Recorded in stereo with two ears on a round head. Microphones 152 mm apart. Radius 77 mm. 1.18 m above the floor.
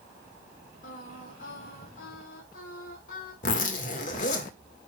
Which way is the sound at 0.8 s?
60° left (ahead or behind).